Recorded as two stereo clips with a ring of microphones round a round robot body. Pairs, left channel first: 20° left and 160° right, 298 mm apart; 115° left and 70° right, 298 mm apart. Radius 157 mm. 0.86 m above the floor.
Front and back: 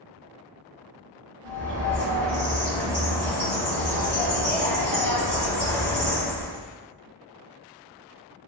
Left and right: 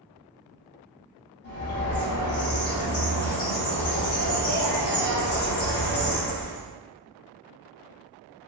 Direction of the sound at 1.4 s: 95° left.